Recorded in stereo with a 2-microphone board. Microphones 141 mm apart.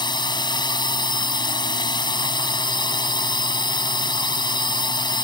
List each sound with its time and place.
0.0 s a drone: 35° left (ahead or behind)